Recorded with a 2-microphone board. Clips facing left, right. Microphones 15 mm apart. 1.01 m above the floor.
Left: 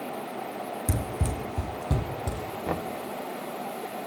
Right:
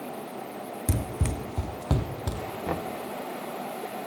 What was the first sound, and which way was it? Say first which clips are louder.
Running footsteps: right 2 dB; 25° right (ahead or behind).